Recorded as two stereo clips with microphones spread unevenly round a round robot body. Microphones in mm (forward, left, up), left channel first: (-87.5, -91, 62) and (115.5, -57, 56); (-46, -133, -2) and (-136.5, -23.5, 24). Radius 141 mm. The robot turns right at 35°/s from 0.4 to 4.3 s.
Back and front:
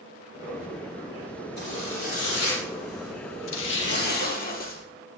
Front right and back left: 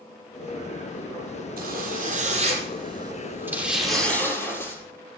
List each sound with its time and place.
1.6 s a zipper: 135° left, 6.5 m; by 4.8 s 125° right, 6.5 m